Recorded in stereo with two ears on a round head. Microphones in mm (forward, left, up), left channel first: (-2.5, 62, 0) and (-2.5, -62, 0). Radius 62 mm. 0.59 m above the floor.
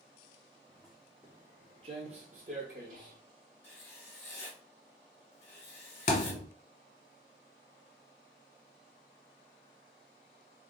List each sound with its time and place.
0.7 s footsteps: 10° left (ahead or behind), 0.7 m; by 3.2 s 70° right (ahead or behind), 1.5 m
3.6 s writing: 15° left (ahead or behind), 1.2 m
6.1 s a thud: 55° left (ahead or behind), 0.9 m